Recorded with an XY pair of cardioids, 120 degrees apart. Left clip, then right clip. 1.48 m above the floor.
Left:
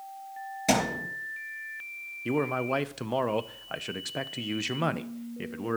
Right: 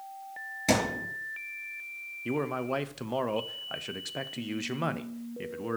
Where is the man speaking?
10° left, 0.5 m.